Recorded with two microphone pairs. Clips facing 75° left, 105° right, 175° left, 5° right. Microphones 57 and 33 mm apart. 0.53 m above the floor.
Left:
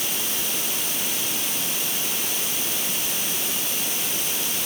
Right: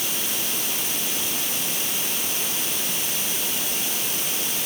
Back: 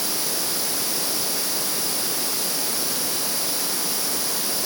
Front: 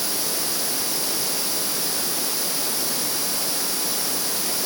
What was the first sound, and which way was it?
Only background noise.